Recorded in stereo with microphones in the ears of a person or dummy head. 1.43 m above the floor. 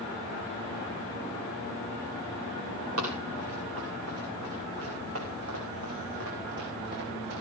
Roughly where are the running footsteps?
Right.